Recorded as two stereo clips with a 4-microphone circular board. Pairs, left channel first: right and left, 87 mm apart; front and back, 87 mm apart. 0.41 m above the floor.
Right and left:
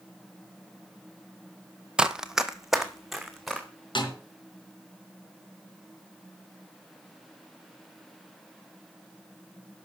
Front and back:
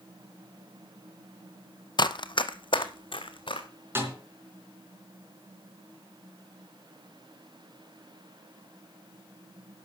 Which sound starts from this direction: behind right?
A snare drum, at 4.0 s.